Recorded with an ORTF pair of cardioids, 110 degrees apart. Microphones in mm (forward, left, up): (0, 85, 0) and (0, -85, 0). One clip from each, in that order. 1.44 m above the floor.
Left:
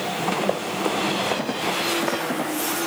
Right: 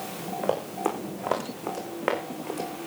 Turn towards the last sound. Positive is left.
turn(degrees=-35)